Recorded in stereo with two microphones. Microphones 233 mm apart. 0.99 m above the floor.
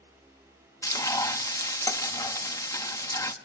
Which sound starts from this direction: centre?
Frying, at 0.8 s.